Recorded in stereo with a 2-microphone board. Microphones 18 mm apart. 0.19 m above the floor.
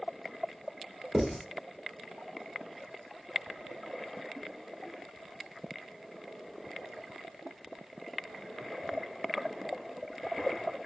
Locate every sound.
1.1 s writing: 55° right (ahead or behind), 3 m